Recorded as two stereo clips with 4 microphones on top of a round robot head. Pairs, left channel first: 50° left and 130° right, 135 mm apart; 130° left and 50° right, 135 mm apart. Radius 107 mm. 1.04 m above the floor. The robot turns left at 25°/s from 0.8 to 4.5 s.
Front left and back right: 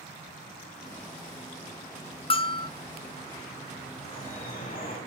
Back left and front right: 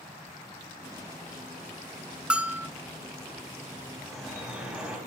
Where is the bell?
30° left, 0.6 m; by 2.7 s 20° left, 0.6 m.